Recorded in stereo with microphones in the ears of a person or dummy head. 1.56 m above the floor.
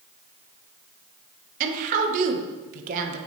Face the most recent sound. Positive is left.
turn(degrees=-40)  # may be behind; listen again after turning